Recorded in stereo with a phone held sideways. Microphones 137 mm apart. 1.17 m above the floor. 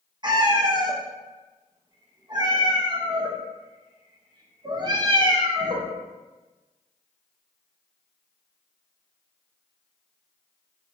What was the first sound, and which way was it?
A cat meowing, 35° right (ahead or behind).